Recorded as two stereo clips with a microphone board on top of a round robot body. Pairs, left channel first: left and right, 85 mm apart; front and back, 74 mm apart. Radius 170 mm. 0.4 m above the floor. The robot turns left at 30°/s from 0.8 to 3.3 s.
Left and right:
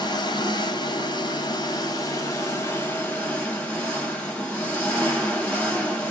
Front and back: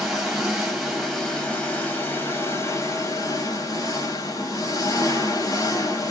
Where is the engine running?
95° left, 1.0 m; by 6.1 s 20° left, 1.0 m.